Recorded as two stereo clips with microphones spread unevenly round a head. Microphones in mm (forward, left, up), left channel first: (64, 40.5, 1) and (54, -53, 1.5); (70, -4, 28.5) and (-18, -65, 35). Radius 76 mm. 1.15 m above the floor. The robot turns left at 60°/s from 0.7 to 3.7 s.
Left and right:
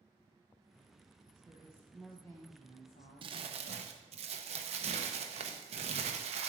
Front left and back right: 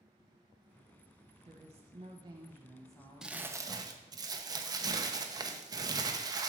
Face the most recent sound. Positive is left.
turn(degrees=-90)